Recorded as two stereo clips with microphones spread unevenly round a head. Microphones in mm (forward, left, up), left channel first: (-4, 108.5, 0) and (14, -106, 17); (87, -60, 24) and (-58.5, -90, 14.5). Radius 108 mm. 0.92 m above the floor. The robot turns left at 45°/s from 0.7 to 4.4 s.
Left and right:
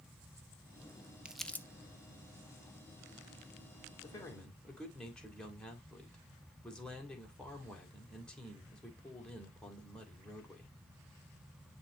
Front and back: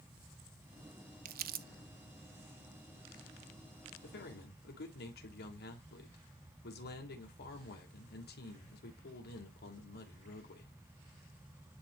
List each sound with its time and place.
1.2 s crumpling: 165° right, 0.6 m; by 1.7 s 175° left, 0.6 m
4.0 s a man speaking: 25° left, 3 m; by 10.7 s 10° left, 3 m